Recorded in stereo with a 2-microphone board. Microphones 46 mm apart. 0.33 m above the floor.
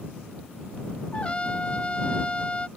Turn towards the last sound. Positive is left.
turn(degrees=25)  # may be behind; listen again after turning